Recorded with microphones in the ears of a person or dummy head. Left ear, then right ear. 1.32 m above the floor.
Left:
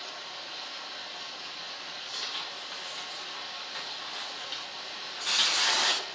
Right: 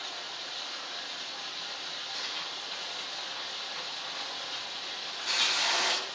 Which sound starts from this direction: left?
Tearing paper, at 2.1 s.